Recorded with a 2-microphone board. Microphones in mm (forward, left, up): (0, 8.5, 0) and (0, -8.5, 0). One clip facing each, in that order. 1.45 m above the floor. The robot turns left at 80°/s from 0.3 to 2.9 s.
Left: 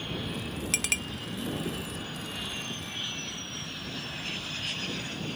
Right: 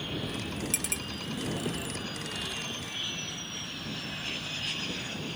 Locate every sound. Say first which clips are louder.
0.7 s a clink: left 10 dB; 35° left (ahead or behind); by 1.0 s 45° left (ahead or behind)